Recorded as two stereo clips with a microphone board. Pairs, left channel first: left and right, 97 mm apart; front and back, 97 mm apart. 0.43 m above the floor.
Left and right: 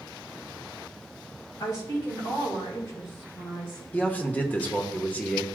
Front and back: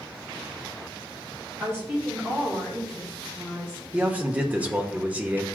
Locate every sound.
1.6 s a woman speaking: 120° left, 2.5 m; by 3.8 s 70° left, 3.5 m
3.9 s a man speaking: 130° left, 0.9 m